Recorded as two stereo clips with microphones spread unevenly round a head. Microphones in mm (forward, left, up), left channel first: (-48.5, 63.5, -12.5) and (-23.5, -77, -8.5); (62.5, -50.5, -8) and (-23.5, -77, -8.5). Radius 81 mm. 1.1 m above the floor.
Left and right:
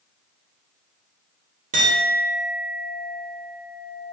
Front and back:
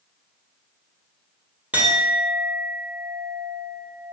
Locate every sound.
1.7 s a clink: 90° right, 0.6 m